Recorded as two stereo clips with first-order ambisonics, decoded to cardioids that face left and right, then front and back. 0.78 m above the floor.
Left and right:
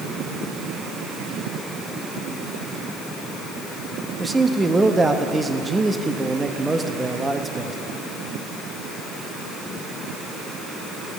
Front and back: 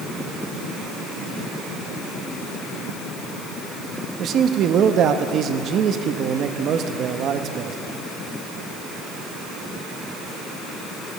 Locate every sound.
4.2 s a man speaking: 165° right, 0.7 m